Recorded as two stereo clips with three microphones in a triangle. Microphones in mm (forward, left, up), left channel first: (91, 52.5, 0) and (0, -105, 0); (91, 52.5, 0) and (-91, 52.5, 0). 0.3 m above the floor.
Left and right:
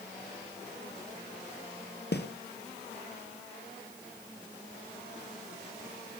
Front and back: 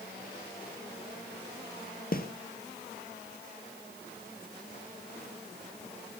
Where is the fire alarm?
No fire alarm in this recording.